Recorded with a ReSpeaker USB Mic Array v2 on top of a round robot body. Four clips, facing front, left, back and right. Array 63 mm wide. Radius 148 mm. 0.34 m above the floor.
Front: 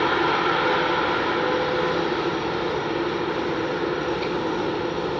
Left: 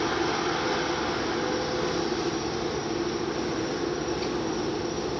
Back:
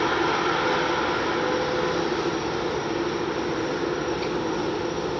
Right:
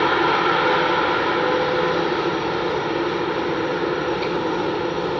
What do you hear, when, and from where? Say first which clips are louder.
0.0 s a helicopter: right 9 dB, front 2 dB; 75° right